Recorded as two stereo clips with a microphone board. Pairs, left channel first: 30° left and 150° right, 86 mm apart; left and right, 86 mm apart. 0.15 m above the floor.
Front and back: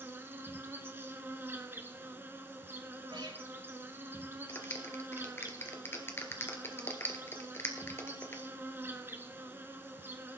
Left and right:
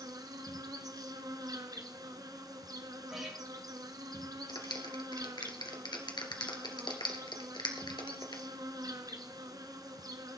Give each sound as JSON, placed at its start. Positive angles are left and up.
{"t": 0.0, "sound": "an insect", "azimuth_deg": -95, "distance_m": 1.2}
{"t": 3.1, "sound": "a guitar", "azimuth_deg": -175, "distance_m": 6.0}
{"t": 4.5, "sound": "a clap", "azimuth_deg": 85, "distance_m": 2.0}